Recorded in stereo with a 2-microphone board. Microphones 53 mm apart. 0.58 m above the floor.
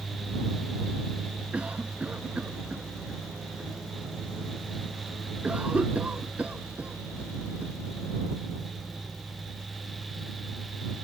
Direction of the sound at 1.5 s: 25° right (ahead or behind).